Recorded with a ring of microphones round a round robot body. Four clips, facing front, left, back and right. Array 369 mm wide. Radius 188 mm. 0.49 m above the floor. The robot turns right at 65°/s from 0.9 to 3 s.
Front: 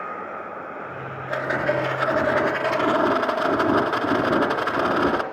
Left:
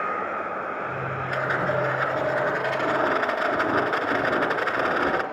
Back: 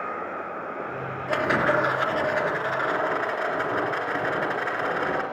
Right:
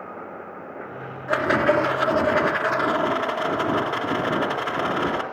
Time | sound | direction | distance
1.3 | a rattle | 135° right | 3 m